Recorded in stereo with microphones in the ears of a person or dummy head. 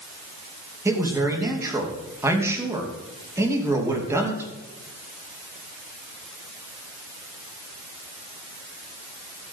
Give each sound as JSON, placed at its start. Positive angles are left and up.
{"t": 0.8, "sound": "a man speaking", "side_deg": -20, "distance_m": 2.5}